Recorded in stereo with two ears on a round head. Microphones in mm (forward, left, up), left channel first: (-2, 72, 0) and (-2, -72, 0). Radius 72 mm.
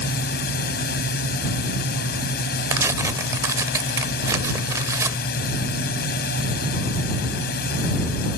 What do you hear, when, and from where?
0.0 s a drone: 60° left (ahead or behind)
2.7 s tearing paper: 20° right (ahead or behind)